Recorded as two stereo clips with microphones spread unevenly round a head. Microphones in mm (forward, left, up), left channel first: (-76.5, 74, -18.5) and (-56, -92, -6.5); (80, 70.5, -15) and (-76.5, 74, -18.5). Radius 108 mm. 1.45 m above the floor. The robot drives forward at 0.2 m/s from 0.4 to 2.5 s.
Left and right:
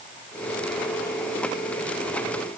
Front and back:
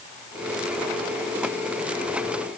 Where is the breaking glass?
I don't hear breaking glass.